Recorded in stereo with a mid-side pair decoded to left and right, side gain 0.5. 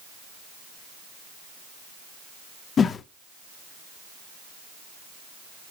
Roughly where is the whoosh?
Ahead left.